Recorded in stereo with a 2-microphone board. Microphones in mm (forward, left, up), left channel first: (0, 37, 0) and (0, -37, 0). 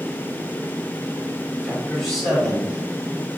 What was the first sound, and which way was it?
A man speaking, 10° left (ahead or behind).